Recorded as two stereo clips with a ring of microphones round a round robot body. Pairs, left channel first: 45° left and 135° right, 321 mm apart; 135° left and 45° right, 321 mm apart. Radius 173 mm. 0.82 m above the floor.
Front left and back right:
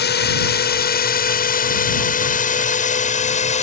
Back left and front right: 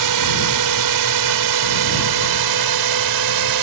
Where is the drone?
15° right; by 3.6 s 25° right.